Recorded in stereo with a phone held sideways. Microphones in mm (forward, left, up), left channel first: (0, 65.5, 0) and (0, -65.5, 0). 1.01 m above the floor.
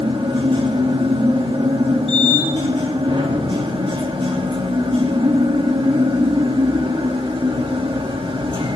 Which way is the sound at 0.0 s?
40° right (ahead or behind).